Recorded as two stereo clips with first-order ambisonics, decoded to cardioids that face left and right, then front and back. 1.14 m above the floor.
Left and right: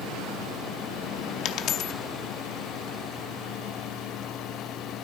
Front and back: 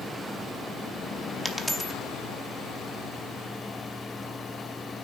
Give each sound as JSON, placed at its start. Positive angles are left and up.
{"t": 1.4, "sound": "a dropped coin", "azimuth_deg": 90, "distance_m": 0.7}